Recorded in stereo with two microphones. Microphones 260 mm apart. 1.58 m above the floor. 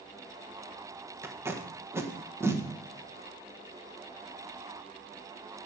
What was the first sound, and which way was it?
Tape being pulled, 10° right (ahead or behind).